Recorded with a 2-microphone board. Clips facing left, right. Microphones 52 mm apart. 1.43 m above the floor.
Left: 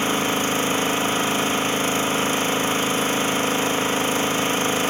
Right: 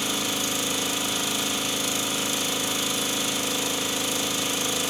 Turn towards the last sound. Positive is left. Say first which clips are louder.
# left 7 dB
turn(degrees=40)  # may be behind; listen again after turning